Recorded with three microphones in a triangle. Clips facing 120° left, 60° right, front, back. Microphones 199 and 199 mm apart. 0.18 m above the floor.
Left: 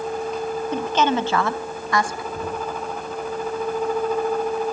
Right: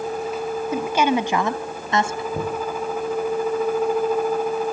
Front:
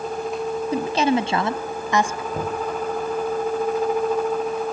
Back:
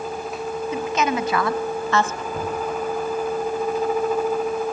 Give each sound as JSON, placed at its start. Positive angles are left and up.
{"t": 0.7, "sound": "a woman speaking", "azimuth_deg": 20, "distance_m": 1.7}
{"t": 2.3, "sound": "knocking", "azimuth_deg": -60, "distance_m": 8.0}